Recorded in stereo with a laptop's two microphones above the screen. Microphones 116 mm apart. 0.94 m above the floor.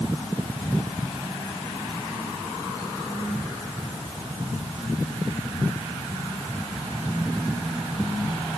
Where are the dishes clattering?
I don't hear dishes clattering.